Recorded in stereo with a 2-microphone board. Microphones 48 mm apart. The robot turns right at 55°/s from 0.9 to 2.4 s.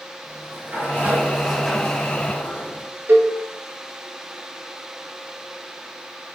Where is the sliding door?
50° right, 1.6 m; by 2.9 s 30° left, 1.6 m.